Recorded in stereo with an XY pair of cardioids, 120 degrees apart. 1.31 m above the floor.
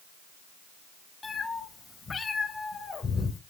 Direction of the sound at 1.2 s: 20° left.